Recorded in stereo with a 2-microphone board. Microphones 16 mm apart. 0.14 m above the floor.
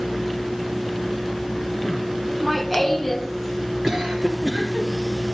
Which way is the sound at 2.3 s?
Centre (ahead or behind).